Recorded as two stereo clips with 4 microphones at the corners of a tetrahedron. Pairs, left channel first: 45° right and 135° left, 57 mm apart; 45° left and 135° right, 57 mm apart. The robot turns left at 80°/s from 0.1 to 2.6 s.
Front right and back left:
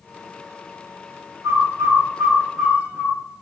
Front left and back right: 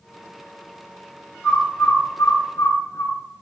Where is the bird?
130° left, 0.7 m; by 3.2 s 35° left, 0.7 m.